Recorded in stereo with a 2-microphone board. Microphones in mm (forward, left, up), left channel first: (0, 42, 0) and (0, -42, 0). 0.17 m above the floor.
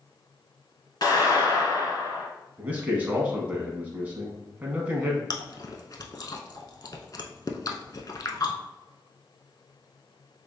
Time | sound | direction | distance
1.0 | a clap | 50° left (ahead or behind) | 1.9 m
2.6 | a man speaking | 20° right (ahead or behind) | 1.1 m
5.3 | chewing | 50° left (ahead or behind) | 0.6 m